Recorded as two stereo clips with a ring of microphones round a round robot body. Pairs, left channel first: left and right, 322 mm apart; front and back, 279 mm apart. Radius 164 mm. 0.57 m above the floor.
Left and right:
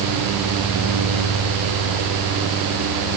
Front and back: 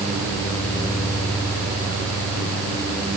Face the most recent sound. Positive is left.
No sound to turn to.